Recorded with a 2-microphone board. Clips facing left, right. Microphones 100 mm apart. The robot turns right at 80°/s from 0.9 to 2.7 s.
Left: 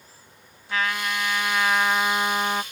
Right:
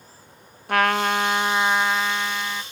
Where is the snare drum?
I don't hear a snare drum.